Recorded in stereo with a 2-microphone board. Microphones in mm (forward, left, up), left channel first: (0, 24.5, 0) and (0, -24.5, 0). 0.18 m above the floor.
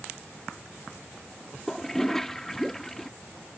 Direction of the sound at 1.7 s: 5° left (ahead or behind).